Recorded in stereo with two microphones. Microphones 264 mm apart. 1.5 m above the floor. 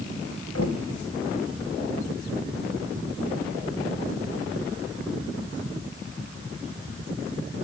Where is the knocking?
70° left (ahead or behind), 1.7 m.